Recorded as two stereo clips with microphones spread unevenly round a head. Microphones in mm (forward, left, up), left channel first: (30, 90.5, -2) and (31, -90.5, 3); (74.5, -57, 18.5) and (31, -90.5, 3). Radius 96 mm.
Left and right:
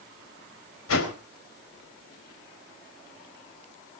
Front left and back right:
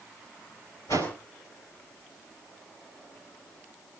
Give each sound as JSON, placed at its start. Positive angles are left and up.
{"t": 0.9, "sound": "a whoosh", "azimuth_deg": 95, "distance_m": 3.5}